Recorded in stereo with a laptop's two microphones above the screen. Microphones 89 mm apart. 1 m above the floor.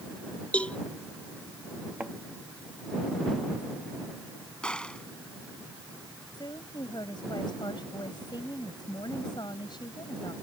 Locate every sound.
0.5 s a cowbell: 15° left (ahead or behind)
2.0 s a thud: 15° right (ahead or behind)
4.6 s a gunshot: 10° left (ahead or behind)
6.3 s a woman speaking: 55° left (ahead or behind)